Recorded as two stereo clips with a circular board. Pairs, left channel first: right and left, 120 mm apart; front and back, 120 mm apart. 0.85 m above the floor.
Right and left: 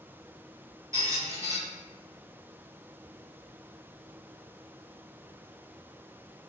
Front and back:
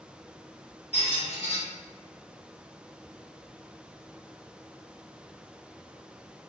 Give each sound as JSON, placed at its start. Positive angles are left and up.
{"t": 0.9, "sound": "a squeak", "azimuth_deg": 30, "distance_m": 1.1}